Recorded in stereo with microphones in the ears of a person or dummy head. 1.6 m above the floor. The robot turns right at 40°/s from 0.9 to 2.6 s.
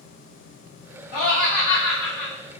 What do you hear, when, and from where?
1.1 s laughter: 125° left, 1.0 m; by 2.3 s 175° left, 1.0 m